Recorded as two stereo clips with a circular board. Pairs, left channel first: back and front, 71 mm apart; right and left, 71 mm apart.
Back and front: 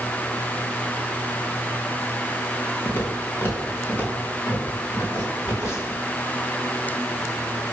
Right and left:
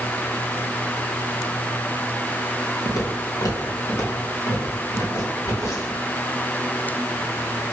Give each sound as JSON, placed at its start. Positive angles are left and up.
{"t": 2.9, "sound": "footsteps", "azimuth_deg": -120, "distance_m": 2.5}